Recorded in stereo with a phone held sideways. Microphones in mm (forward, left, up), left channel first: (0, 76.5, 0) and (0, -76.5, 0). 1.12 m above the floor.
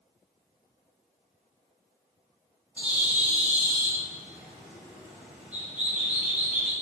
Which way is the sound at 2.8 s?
10° right (ahead or behind).